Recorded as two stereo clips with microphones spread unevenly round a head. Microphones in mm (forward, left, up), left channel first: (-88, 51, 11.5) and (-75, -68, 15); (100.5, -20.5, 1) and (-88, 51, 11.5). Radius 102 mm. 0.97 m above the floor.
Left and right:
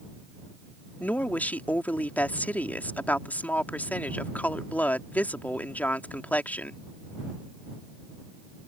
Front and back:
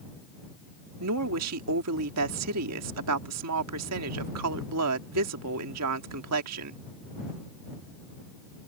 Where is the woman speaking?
175° left.